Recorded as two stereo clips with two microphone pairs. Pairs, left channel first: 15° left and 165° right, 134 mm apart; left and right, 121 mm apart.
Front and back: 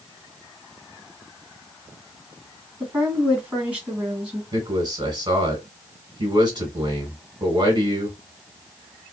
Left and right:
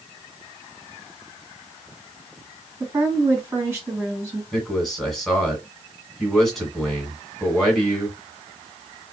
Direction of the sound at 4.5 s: Straight behind.